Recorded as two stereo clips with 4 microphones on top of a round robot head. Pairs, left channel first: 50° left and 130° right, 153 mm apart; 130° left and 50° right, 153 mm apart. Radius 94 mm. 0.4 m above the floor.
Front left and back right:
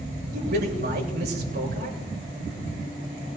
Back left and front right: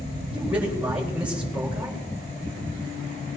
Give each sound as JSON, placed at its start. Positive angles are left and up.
{"t": 0.3, "sound": "a man speaking", "azimuth_deg": -135, "distance_m": 6.5}